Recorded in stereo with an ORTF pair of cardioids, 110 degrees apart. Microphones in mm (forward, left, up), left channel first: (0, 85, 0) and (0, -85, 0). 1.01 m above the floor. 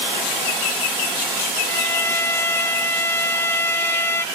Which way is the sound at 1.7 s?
15° left.